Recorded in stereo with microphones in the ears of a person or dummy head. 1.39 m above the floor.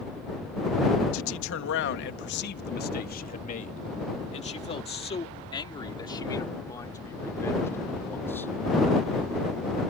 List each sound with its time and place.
1.1 s a man speaking: 75° left (ahead or behind); by 8.5 s 10° left (ahead or behind)